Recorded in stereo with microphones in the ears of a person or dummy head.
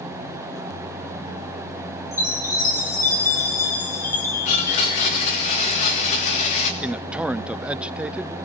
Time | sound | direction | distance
2.1 | a chime | 15° left (ahead or behind) | 3 m
4.5 | a blender | 35° left (ahead or behind) | 3 m
6.8 | a man speaking | 10° right (ahead or behind) | 0.6 m